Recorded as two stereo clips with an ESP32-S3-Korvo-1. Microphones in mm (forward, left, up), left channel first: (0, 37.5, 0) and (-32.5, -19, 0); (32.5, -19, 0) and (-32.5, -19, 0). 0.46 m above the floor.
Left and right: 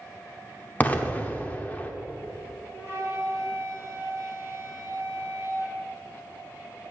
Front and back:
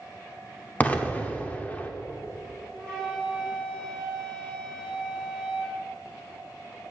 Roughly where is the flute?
Right.